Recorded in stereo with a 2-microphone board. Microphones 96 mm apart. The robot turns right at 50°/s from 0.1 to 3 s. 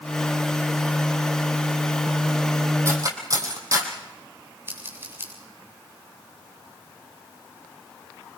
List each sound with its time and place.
2.9 s cutlery clinking: 30° right (ahead or behind), 3 m; by 3.9 s 35° right (ahead or behind), 3 m
4.7 s scissors: 25° right (ahead or behind), 4 m